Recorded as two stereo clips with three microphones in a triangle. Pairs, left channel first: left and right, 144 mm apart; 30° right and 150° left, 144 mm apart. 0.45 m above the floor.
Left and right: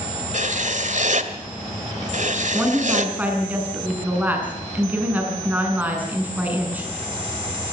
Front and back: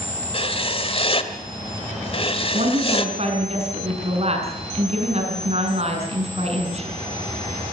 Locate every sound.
0.3 s writing: 75° right, 1.6 m
2.5 s a woman speaking: 170° right, 6 m